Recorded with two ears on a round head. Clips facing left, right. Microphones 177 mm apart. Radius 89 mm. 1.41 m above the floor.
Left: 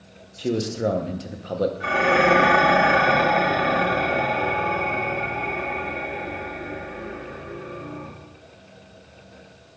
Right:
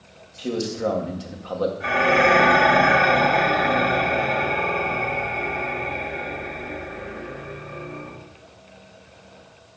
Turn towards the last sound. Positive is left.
turn(degrees=65)  # may be behind; listen again after turning